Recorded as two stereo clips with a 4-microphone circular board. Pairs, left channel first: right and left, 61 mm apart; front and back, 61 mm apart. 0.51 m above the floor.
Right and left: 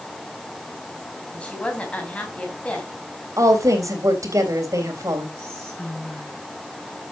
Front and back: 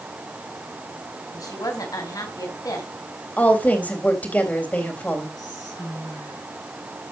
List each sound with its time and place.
1.3 s a woman speaking: 20° right, 4 m
3.4 s a woman speaking: 65° left, 3 m
5.4 s whispering: 15° right, 7.5 m